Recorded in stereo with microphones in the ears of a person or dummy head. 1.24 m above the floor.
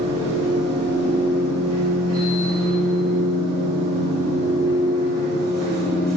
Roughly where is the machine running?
Left.